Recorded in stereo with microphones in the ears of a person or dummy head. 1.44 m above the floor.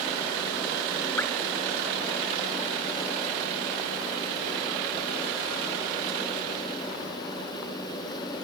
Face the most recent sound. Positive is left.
turn(degrees=5)  # may be behind; listen again after turning